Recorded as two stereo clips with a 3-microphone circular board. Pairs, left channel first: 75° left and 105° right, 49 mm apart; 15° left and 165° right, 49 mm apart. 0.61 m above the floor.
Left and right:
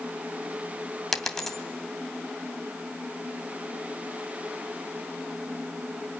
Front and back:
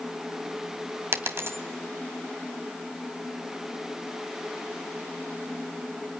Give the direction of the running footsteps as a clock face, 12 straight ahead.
I don't hear running footsteps.